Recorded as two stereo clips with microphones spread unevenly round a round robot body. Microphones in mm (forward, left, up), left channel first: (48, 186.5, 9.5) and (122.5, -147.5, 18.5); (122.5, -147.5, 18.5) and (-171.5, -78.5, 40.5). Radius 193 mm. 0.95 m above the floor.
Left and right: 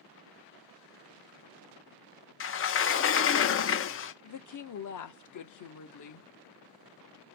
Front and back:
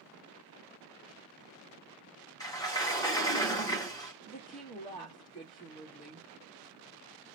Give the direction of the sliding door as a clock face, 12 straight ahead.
10 o'clock.